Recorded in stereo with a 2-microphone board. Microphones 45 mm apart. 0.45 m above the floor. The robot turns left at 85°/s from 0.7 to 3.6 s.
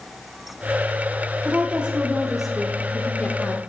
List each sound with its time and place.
1.4 s a woman speaking: 25° right (ahead or behind), 0.9 m; by 3.6 s 25° left (ahead or behind), 0.9 m